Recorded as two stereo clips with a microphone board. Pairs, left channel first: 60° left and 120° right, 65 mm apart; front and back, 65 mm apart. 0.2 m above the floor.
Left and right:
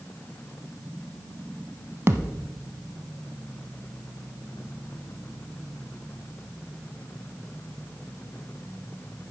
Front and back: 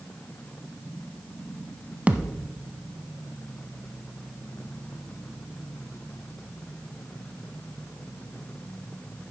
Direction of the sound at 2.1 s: 120° right.